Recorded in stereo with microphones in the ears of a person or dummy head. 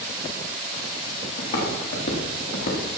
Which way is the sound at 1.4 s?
40° left (ahead or behind).